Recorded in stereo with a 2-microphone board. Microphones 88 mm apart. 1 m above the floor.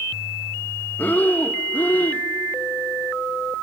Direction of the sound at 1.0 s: 20° left (ahead or behind).